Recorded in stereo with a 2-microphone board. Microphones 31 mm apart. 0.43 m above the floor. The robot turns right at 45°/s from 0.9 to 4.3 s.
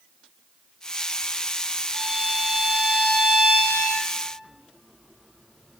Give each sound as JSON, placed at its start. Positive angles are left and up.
{"t": 1.9, "sound": "a violin", "azimuth_deg": -155, "distance_m": 0.6}